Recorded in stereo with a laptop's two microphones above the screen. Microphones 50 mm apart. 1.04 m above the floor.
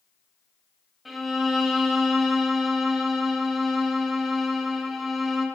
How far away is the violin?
About 0.7 m.